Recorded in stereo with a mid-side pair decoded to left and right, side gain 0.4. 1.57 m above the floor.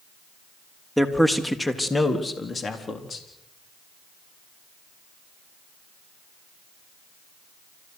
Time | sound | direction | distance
1.0 | a man speaking | straight ahead | 3 m